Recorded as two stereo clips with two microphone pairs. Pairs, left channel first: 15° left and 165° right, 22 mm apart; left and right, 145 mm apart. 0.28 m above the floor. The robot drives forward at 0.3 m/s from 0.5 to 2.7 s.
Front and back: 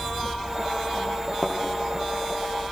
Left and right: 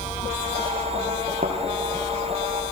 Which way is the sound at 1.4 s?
75° right.